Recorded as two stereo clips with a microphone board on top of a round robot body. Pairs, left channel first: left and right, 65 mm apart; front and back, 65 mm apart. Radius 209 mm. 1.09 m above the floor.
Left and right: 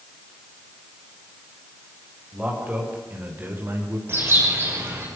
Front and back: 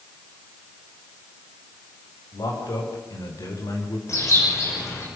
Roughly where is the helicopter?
I don't hear a helicopter.